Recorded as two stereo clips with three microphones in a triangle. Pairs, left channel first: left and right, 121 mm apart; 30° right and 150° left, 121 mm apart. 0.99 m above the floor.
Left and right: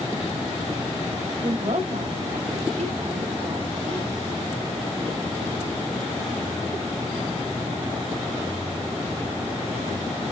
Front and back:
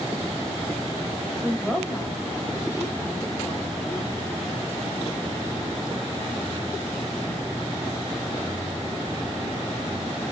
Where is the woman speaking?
115° right, 1.6 m; by 4.2 s 85° right, 2.5 m.